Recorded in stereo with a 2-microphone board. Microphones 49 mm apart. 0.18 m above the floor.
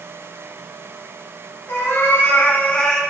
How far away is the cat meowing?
About 0.9 m.